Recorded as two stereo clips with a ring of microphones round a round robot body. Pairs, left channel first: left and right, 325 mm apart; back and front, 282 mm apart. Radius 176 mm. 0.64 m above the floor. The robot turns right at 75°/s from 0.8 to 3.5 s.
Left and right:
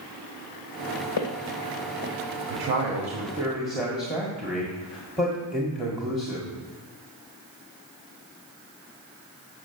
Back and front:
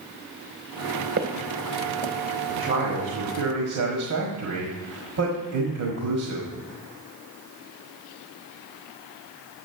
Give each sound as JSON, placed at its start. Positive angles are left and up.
{"t": 1.2, "sound": "footsteps", "azimuth_deg": 55, "distance_m": 1.6}
{"t": 2.5, "sound": "a man speaking", "azimuth_deg": -75, "distance_m": 1.5}